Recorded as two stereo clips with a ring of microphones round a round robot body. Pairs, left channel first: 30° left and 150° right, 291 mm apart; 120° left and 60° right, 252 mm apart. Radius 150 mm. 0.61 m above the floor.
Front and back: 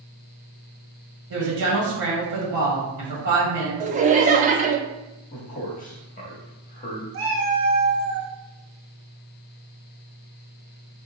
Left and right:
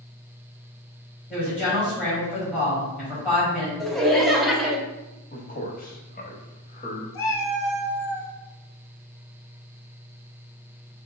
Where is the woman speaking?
155° right, 2 m.